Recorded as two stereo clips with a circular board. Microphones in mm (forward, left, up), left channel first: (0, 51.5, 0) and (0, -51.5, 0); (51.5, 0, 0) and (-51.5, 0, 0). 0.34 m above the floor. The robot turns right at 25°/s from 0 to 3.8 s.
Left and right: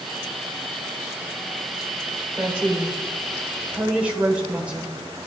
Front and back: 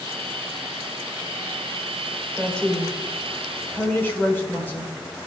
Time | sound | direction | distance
2.4 | a woman speaking | 65° right | 1.3 m